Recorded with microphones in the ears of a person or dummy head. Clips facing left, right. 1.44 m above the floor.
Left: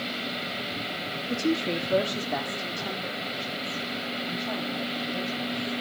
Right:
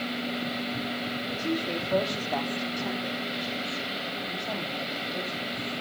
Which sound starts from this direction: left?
A woman speaking, at 1.3 s.